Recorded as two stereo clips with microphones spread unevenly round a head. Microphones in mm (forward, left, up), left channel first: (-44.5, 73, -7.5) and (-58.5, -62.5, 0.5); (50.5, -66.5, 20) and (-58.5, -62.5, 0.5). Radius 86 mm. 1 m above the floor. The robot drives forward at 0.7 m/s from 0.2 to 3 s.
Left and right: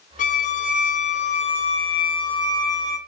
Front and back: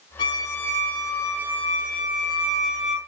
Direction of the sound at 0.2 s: 60° left.